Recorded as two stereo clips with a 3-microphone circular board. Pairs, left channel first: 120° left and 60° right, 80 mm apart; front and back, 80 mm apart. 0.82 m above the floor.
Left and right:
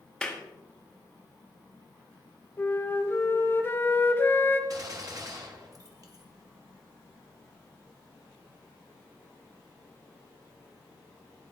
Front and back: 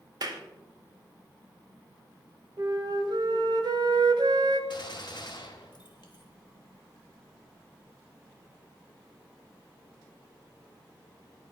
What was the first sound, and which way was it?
A clap, 160° right.